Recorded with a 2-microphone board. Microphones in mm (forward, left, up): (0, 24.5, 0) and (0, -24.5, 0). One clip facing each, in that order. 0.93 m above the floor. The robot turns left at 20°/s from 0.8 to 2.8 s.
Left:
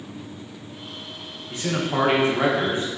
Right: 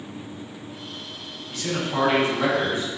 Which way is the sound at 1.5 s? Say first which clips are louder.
Left 2 dB; 25° left (ahead or behind).